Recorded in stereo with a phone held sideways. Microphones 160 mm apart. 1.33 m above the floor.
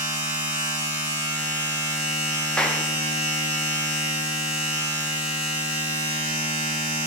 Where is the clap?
5° left (ahead or behind), 0.6 m.